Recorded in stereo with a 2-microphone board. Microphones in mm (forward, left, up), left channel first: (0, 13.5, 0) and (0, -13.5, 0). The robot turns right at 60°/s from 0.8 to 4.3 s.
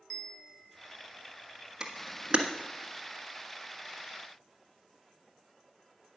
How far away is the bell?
About 1.5 m.